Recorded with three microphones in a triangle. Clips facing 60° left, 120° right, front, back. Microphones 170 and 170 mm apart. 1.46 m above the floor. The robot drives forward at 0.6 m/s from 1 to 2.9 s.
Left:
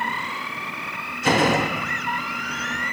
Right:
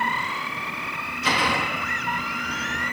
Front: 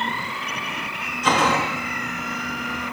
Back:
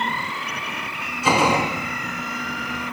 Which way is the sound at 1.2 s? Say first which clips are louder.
Left 7 dB, back 2 dB; 100° left.